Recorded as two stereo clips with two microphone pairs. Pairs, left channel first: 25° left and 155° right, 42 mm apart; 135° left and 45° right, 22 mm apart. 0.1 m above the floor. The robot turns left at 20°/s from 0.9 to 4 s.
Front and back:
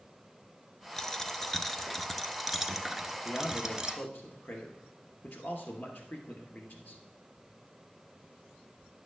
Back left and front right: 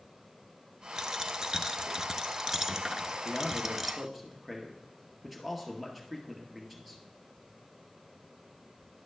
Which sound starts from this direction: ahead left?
A man speaking, at 3.2 s.